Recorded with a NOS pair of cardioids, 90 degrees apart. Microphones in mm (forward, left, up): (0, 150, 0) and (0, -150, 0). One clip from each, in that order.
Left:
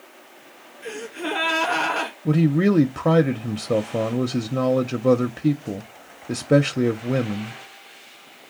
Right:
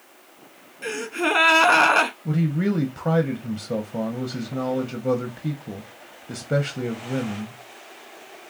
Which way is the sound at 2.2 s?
30° left.